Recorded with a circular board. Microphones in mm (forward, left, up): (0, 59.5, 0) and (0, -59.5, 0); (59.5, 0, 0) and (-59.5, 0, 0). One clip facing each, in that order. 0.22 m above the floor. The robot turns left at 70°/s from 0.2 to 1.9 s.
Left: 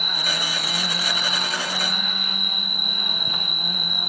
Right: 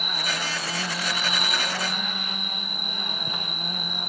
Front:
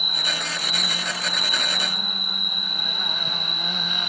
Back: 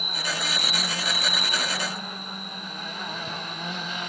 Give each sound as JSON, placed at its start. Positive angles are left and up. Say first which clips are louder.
{"t": 0.0, "sound": "an insect", "louder": "left 1 dB, even", "azimuth_deg": 125}